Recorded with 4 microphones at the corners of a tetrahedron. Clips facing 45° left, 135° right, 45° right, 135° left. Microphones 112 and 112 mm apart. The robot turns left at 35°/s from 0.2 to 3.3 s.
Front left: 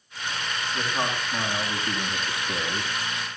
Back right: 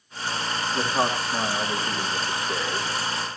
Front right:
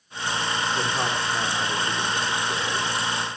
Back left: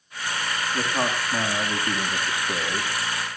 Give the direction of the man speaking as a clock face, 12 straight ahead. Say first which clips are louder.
Back right 4 dB, even; 6 o'clock.